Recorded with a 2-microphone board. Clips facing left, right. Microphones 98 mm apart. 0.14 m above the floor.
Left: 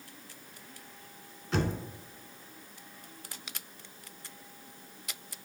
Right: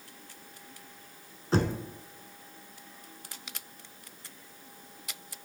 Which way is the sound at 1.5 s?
35° right (ahead or behind).